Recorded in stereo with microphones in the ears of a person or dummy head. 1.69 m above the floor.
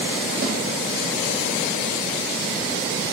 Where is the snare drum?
50° right (ahead or behind), 4 m.